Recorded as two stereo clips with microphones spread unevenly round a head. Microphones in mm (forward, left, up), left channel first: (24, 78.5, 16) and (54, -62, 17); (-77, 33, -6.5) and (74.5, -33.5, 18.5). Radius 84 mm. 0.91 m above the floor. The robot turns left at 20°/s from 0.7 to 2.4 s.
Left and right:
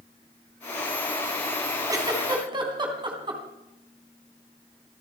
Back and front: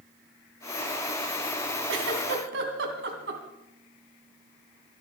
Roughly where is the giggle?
Ahead.